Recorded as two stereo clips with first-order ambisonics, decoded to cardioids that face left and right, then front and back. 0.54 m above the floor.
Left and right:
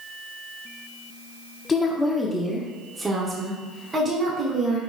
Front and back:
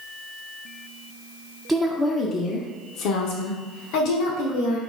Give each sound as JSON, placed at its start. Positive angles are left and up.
{"t": 1.7, "sound": "a woman speaking", "azimuth_deg": 115, "distance_m": 0.7}